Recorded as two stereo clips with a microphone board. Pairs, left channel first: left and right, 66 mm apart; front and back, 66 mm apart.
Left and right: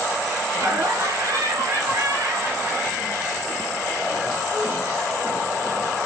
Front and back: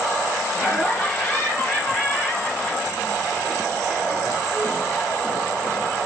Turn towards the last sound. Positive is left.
turn(degrees=-60)